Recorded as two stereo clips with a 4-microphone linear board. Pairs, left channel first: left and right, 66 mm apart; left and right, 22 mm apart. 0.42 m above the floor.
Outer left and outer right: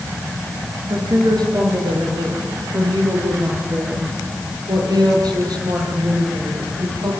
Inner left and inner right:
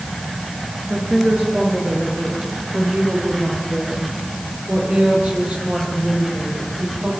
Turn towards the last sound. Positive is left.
turn(degrees=-80)